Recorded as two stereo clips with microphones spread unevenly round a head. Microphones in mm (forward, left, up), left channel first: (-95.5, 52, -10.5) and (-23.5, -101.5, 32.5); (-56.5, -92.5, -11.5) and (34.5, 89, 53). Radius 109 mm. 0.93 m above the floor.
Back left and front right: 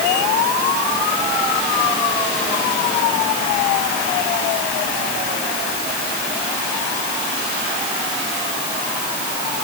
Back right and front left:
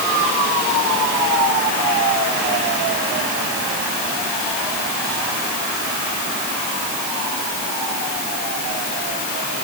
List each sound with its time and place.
Only background noise.